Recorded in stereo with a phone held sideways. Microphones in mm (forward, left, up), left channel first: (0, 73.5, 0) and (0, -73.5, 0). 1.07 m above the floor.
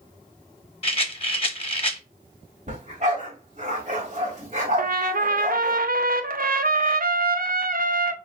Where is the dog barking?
55° right (ahead or behind), 2 m.